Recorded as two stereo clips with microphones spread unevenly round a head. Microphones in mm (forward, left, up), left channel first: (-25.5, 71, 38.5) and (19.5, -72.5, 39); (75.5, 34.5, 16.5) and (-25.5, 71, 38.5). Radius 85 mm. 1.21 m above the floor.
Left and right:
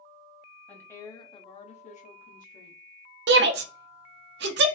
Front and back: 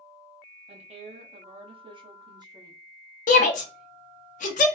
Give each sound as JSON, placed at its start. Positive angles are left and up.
{"t": 0.7, "sound": "a woman speaking", "azimuth_deg": -175, "distance_m": 0.8}
{"t": 3.3, "sound": "a shout", "azimuth_deg": -55, "distance_m": 0.5}